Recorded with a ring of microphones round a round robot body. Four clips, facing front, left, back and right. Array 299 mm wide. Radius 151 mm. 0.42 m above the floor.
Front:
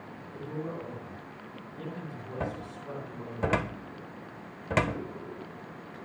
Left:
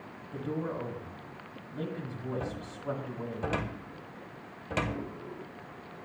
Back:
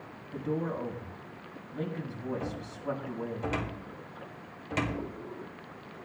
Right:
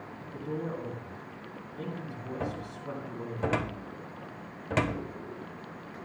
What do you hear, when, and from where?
0.3 s a man speaking: 145° left, 4.5 m
2.4 s a cupboard door: 20° right, 1.3 m